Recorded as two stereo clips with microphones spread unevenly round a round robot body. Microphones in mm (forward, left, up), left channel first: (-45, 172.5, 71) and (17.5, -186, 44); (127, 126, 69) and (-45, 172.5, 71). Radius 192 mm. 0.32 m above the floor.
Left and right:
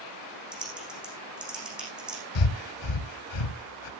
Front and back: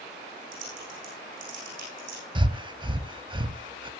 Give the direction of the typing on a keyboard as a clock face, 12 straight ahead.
6 o'clock.